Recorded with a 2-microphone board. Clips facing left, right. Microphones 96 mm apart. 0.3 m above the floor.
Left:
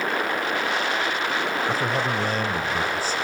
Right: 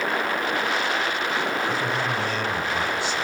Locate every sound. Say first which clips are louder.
1.7 s a man speaking: left 1 dB; 40° left (ahead or behind), 1.2 m